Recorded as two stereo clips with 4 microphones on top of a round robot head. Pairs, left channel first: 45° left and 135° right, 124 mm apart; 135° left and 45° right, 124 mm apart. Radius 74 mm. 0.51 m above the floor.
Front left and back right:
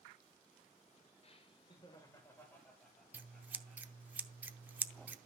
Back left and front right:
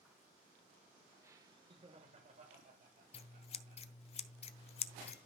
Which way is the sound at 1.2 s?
20° left.